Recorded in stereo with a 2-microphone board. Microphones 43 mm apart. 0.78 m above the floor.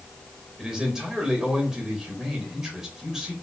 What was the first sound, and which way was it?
A man speaking, 10° right (ahead or behind).